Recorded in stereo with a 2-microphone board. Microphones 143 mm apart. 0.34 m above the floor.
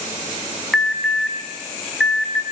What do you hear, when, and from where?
0.7 s an alarm: centre (ahead or behind), 4.5 m